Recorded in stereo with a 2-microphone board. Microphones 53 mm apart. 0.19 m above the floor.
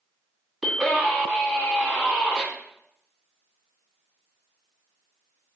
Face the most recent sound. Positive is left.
turn(degrees=-5)  # may be behind; listen again after turning